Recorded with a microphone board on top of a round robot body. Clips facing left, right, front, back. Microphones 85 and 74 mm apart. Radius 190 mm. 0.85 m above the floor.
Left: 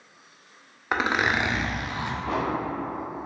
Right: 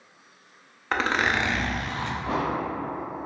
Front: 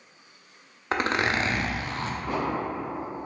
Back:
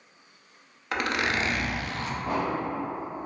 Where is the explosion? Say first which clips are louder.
Even, back 1 dB; 155° right, 0.7 m.